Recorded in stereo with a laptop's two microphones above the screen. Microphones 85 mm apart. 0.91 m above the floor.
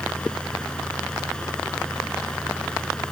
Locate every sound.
0.0 s a fan: 10° left (ahead or behind)